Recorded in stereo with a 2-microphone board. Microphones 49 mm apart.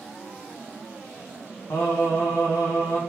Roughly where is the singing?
Left.